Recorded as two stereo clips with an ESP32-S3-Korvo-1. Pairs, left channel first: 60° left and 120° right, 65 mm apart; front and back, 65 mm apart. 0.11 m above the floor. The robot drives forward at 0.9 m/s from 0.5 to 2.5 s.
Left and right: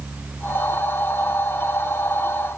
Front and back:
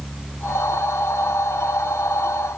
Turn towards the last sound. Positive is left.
No sound to turn to.